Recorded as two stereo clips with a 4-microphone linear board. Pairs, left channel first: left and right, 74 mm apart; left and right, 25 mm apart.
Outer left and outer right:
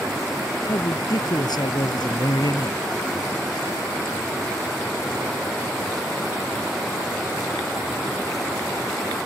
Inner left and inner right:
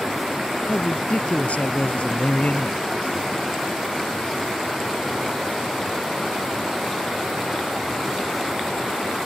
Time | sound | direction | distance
0.7 | a man speaking | 65° left (ahead or behind) | ?